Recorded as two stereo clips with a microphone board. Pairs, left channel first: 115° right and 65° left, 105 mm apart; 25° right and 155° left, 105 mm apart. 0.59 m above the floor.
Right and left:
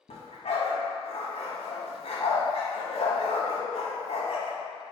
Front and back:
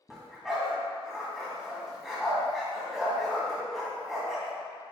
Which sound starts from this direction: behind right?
A dog barking, at 0.1 s.